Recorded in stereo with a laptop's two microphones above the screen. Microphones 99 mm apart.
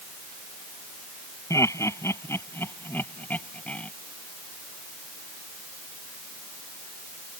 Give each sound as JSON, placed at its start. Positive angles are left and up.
{"t": 1.5, "sound": "laughter", "side_deg": 30}